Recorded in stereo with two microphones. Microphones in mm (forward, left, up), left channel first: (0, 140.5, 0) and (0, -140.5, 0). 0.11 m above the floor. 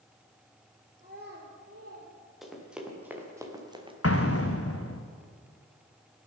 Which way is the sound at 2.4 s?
Centre (ahead or behind).